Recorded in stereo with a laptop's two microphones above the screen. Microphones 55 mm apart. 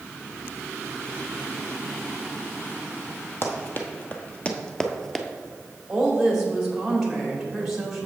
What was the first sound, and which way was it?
Running footsteps, 45° left (ahead or behind).